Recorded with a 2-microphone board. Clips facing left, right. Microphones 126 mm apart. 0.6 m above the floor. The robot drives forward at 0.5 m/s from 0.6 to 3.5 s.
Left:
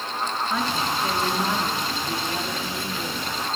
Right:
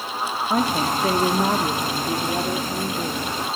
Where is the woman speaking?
45° right (ahead or behind), 0.8 m; by 3.4 s 20° right (ahead or behind), 1.6 m.